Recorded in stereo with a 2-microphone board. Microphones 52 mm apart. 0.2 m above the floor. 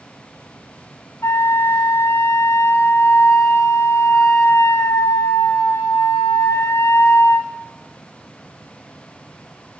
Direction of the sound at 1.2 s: 65° left (ahead or behind).